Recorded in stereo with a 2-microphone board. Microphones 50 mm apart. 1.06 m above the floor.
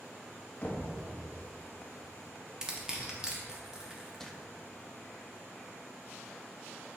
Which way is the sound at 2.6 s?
15° right (ahead or behind).